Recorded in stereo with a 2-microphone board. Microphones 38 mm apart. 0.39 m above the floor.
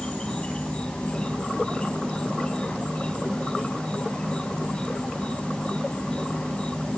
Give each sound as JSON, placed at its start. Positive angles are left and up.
{"t": 0.0, "sound": "an insect", "side_deg": 25, "distance_m": 2.0}